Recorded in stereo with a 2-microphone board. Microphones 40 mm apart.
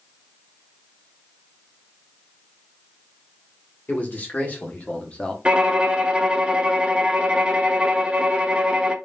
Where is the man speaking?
45° left (ahead or behind), 2.0 m; by 5.3 s 25° left (ahead or behind), 0.9 m.